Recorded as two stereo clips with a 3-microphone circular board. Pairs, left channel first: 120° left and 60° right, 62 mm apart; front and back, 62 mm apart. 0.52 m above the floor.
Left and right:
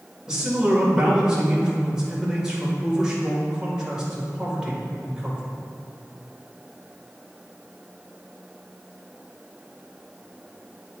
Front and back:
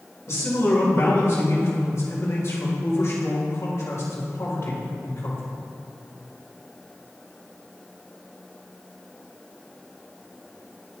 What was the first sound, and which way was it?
A man speaking, 15° left.